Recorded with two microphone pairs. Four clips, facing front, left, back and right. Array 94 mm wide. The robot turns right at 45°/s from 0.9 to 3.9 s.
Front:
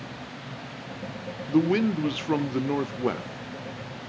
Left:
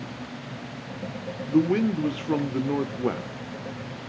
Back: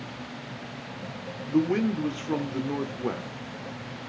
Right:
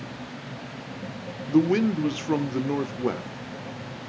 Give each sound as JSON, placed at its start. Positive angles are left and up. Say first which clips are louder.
{"t": 1.5, "sound": "a man speaking", "louder": "right 1 dB, front 2 dB", "azimuth_deg": -55, "distance_m": 0.7}